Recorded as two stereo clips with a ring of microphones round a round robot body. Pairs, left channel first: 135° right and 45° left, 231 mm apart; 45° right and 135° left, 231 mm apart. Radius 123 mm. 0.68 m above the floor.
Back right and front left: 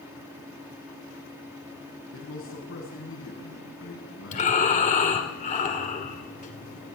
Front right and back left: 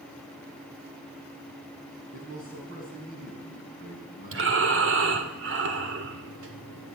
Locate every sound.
2.1 s a man speaking: 170° right, 6 m
4.3 s breathing: 165° left, 2.5 m